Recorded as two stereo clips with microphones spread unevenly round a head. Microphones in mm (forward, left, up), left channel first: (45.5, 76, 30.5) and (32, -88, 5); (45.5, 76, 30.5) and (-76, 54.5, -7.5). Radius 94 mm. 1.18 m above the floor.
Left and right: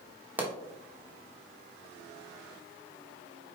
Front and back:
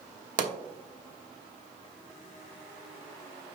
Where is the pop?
175° right, 1.1 m.